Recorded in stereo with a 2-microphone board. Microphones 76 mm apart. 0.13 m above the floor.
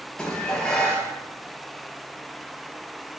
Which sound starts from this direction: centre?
Dishes clattering, at 0.2 s.